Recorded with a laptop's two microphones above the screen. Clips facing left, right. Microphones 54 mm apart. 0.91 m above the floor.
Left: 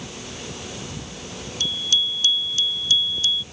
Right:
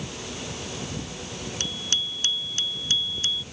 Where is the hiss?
I don't hear a hiss.